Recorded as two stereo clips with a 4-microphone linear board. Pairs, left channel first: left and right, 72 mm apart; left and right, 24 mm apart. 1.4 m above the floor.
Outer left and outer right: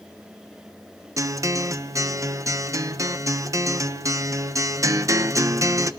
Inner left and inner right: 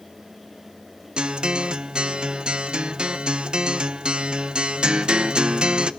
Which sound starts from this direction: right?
A guitar, at 1.2 s.